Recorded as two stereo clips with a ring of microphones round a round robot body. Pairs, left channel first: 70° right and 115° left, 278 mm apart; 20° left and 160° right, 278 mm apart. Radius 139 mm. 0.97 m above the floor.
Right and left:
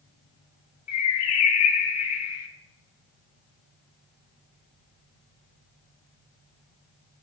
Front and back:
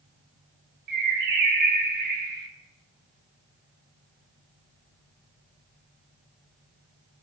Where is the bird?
100° right, 2.5 m.